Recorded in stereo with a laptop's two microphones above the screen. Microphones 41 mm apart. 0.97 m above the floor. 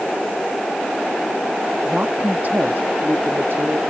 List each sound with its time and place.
1.9 s a woman speaking: 40° right (ahead or behind); by 3.8 s 80° right